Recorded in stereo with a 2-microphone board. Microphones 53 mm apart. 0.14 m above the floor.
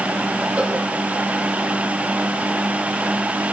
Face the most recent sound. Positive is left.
turn(degrees=-25)  # may be behind; listen again after turning